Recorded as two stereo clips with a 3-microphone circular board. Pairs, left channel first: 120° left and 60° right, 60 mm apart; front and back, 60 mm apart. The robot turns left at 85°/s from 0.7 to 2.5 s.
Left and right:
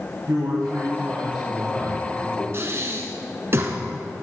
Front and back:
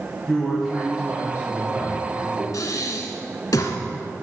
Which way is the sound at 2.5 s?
15° right.